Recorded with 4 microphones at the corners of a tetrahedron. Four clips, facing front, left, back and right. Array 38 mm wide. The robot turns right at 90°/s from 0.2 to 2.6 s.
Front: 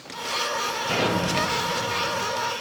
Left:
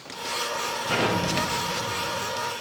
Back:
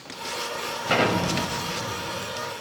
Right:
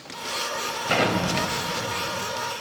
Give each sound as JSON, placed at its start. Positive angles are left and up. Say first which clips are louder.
{"t": 0.9, "sound": "an explosion", "louder": "right 2 dB, back 3 dB", "azimuth_deg": -140, "distance_m": 2.0}